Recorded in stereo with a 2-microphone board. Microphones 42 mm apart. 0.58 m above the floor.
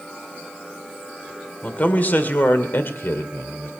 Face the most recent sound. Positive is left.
turn(degrees=70)  # may be behind; listen again after turning